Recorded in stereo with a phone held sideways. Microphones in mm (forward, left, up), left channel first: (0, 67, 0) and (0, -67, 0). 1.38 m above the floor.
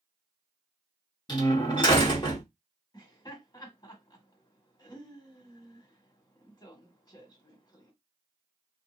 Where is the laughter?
30° left (ahead or behind), 1.7 m.